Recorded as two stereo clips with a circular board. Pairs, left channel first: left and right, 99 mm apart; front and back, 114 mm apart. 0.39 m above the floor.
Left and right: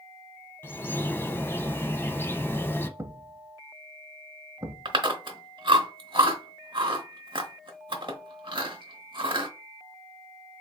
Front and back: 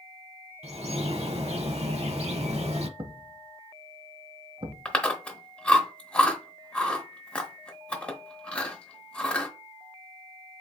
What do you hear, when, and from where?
0.6 s a bird: 155° left, 0.6 m
3.0 s a thud: 145° right, 0.7 m
4.8 s chewing: 75° right, 0.9 m